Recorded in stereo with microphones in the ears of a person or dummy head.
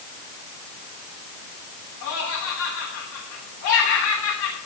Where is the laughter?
70° left (ahead or behind), 9.5 m.